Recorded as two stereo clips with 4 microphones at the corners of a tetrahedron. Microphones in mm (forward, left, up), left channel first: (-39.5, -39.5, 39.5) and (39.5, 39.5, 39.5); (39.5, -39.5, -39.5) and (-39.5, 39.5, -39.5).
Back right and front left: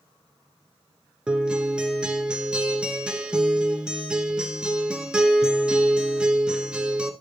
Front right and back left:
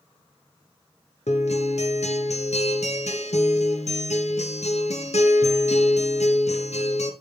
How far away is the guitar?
About 1.2 m.